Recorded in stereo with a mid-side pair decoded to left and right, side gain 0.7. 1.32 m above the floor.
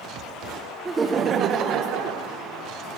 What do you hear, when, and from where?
0.8 s laughter: 20° right, 0.8 m; by 2.3 s 65° right, 1.3 m